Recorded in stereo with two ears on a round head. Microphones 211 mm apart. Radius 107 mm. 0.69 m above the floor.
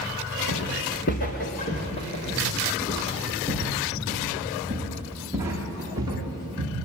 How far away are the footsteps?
About 5.5 m.